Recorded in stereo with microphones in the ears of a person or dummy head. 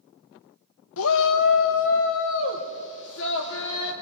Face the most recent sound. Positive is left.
turn(degrees=60)  # may be behind; listen again after turning